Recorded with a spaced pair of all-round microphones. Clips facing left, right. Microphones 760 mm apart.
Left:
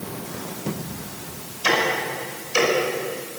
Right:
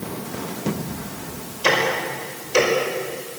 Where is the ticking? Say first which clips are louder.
Right 2 dB; 75° right (ahead or behind), 5 m.